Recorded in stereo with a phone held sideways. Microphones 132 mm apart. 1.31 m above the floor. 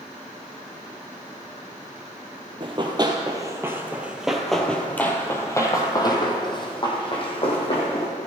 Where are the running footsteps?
40° right (ahead or behind), 1.7 m; by 8.1 s 45° left (ahead or behind), 3 m.